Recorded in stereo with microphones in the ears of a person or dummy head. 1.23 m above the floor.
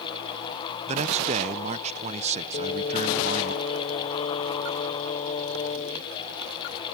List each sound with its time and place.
0.9 s a man speaking: 30° right (ahead or behind)
2.5 s singing: 40° left (ahead or behind)